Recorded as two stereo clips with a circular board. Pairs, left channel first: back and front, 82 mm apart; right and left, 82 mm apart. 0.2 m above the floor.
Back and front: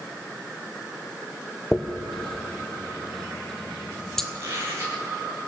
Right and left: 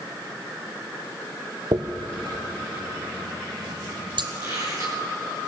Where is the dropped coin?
95° left, 1.7 m.